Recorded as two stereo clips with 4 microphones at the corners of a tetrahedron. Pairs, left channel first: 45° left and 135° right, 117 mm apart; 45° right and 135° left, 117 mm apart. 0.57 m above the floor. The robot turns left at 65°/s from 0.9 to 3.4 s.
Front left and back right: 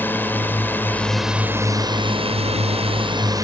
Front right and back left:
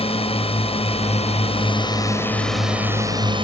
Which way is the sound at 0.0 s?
25° right.